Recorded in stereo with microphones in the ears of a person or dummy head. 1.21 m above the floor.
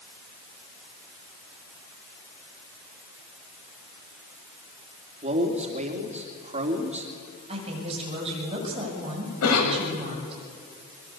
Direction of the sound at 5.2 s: 30° right (ahead or behind).